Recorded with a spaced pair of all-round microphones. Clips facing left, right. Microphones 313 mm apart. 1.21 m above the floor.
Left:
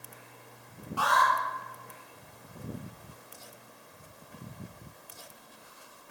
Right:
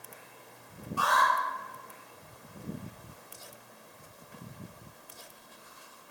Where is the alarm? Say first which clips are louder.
Left 1 dB; 75° left (ahead or behind), 3.5 m.